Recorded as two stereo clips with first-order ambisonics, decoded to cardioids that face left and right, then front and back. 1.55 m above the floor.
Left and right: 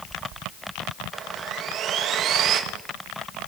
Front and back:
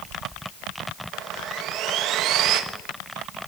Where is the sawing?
140° right, 2.5 m.